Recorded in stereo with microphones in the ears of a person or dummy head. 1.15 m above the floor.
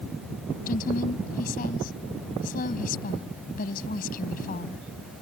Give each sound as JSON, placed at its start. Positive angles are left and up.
{"t": 0.7, "sound": "a woman speaking", "side_deg": 45}